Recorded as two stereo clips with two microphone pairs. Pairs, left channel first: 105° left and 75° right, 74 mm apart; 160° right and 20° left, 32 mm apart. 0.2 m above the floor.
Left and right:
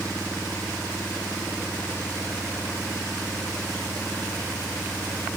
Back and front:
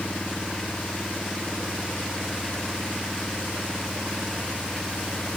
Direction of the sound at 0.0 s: 170° left.